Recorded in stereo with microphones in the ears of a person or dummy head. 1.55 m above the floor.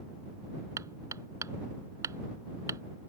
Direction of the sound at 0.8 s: 20° right (ahead or behind).